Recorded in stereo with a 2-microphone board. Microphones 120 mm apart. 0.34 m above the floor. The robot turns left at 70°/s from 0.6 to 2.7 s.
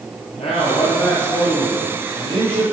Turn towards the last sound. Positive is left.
turn(degrees=-65)